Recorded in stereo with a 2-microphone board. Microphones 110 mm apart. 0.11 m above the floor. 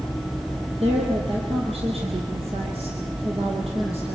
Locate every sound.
0.8 s a woman speaking: 65° right (ahead or behind), 4 m